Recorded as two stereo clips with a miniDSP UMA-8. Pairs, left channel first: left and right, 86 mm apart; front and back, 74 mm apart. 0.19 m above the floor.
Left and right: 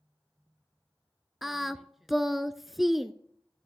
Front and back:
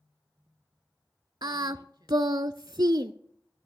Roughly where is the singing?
Behind.